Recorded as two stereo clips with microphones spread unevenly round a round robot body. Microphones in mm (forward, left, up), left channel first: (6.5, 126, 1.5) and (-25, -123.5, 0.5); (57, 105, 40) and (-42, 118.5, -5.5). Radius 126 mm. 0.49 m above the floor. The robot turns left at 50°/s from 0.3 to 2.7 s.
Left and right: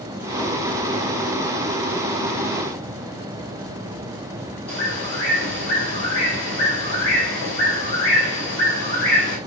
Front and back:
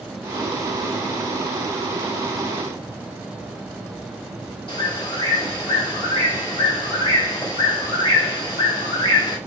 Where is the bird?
40° left, 2 m.